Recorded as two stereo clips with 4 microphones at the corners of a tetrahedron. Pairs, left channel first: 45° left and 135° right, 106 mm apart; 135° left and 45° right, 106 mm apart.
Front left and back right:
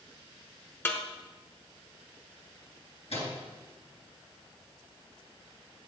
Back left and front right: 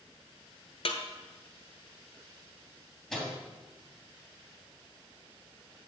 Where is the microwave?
45° left, 3 m.